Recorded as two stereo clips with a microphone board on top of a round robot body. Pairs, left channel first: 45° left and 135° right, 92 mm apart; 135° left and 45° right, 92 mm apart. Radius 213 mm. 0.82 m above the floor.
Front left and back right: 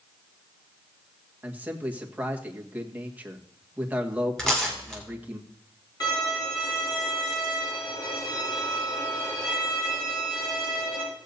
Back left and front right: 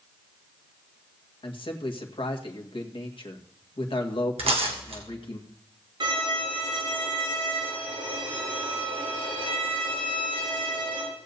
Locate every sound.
1.4 s a man speaking: 155° left, 1.9 m
4.4 s tearing paper: 40° right, 2 m
6.0 s a violin: 5° right, 7.5 m